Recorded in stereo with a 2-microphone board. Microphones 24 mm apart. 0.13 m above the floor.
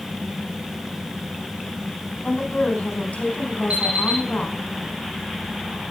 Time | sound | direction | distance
2.2 | a woman speaking | 60° left (ahead or behind) | 3.5 m
3.7 | an alarm clock | 75° right (ahead or behind) | 4 m